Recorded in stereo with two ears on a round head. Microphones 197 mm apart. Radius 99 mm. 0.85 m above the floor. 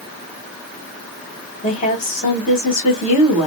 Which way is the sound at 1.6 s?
35° left (ahead or behind).